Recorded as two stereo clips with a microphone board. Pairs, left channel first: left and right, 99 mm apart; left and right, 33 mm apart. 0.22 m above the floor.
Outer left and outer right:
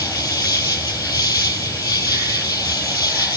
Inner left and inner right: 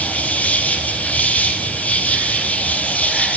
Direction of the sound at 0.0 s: 40° left (ahead or behind).